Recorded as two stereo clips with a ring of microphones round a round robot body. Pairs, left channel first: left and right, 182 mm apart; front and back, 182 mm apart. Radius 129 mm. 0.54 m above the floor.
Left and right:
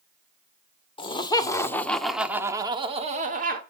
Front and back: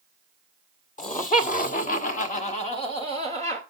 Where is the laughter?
35° left, 1.7 m; by 3.6 s 75° right, 1.5 m.